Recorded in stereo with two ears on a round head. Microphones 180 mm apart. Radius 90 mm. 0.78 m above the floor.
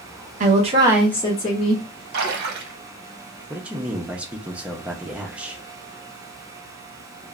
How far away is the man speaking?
About 0.5 m.